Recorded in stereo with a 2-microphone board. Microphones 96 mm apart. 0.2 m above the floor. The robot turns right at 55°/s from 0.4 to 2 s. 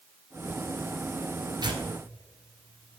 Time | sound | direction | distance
1.6 | tearing paper | 50° right (ahead or behind) | 1.1 m